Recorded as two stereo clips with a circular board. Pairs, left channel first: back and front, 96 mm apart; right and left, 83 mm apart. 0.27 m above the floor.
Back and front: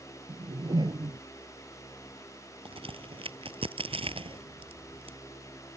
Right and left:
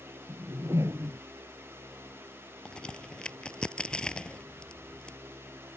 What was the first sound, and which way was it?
A whoosh, 35° left.